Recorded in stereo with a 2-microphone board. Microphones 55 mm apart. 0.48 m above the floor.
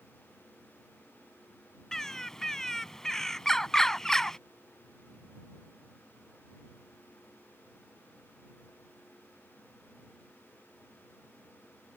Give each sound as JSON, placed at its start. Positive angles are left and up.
{"t": 1.9, "sound": "a bird", "side_deg": 10}